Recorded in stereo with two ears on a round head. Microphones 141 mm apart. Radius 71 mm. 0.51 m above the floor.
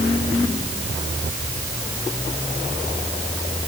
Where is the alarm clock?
No alarm clock in this recording.